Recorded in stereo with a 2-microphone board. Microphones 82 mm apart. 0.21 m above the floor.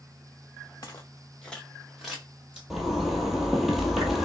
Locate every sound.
0.8 s footsteps: 40° left (ahead or behind), 1.1 m; by 2.6 s 10° right (ahead or behind), 2.5 m
2.7 s a zipper: 5° right (ahead or behind), 0.8 m